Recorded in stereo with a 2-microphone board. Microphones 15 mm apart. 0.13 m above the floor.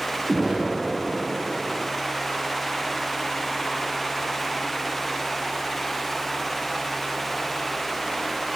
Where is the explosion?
5° right (ahead or behind), 3.5 m.